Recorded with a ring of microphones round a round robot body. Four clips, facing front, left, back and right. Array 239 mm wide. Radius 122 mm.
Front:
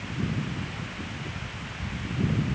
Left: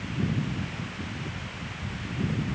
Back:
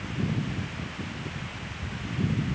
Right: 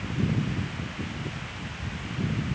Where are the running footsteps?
No running footsteps in this recording.